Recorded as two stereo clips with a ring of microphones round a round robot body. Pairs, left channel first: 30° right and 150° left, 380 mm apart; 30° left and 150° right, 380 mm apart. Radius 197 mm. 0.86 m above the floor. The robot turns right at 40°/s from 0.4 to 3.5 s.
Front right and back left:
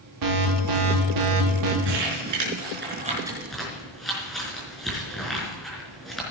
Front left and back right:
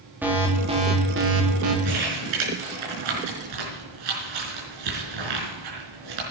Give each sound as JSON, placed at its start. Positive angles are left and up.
{"t": 0.2, "sound": "an alarm", "azimuth_deg": 125, "distance_m": 3.0}
{"t": 1.9, "sound": "crumpling", "azimuth_deg": 175, "distance_m": 5.0}